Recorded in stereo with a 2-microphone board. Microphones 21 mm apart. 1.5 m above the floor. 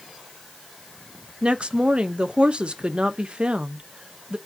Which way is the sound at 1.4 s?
55° right (ahead or behind).